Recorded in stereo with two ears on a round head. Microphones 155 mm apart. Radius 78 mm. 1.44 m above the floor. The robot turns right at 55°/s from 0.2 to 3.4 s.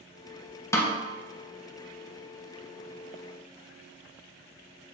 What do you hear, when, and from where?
0.7 s a snare drum: 15° left (ahead or behind), 0.9 m; by 1.0 s centre (ahead or behind), 0.9 m